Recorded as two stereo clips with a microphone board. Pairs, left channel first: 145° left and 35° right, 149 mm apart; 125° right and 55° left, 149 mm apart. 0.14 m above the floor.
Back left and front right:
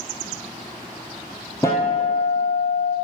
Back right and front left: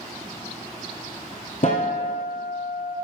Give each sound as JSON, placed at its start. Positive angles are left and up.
{"t": 1.6, "sound": "a guitar", "azimuth_deg": -145, "distance_m": 1.5}